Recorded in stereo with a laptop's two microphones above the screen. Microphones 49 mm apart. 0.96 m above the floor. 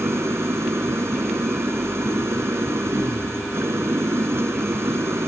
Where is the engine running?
65° right (ahead or behind).